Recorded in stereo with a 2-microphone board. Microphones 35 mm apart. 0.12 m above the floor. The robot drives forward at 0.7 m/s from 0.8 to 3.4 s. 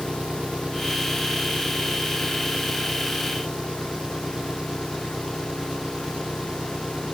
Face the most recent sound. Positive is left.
turn(degrees=-20)  # may be behind; listen again after turning